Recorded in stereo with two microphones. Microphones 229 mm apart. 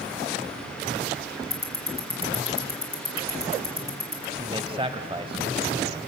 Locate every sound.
1.5 s ticking: 40° right (ahead or behind), 2.5 m
4.4 s a man speaking: 25° right (ahead or behind), 1.0 m